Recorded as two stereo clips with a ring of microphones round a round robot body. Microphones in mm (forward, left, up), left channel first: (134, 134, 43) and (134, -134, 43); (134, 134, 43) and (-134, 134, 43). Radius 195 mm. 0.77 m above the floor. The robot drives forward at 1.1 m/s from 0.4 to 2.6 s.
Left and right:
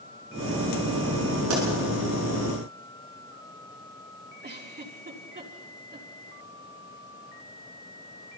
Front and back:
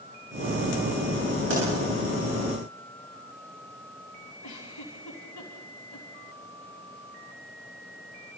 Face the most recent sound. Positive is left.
turn(degrees=-40)